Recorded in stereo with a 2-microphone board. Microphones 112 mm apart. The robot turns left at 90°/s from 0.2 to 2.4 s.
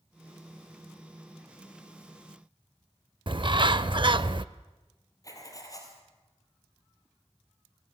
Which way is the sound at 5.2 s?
30° left (ahead or behind).